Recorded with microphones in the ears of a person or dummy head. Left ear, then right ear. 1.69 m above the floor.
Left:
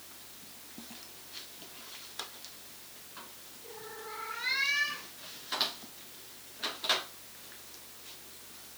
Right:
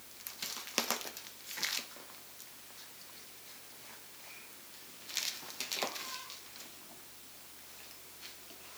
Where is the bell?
No bell in this recording.